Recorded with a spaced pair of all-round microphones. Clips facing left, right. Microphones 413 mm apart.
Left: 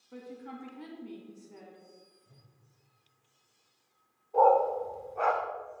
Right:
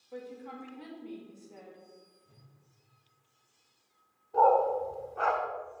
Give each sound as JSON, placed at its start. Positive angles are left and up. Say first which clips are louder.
{"t": 0.1, "sound": "a woman speaking", "louder": "right 1 dB", "side_deg": 25, "distance_m": 2.0}
{"t": 2.2, "sound": "a whoosh", "louder": "right 1 dB", "side_deg": -5, "distance_m": 4.0}
{"t": 4.3, "sound": "a dog barking", "louder": "left 1 dB", "side_deg": -25, "distance_m": 1.0}